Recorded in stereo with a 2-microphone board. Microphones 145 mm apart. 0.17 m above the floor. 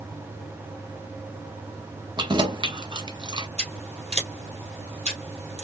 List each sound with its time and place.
2.2 s keys jangling: 30° right (ahead or behind), 0.9 m
3.6 s scissors: 50° right (ahead or behind), 2 m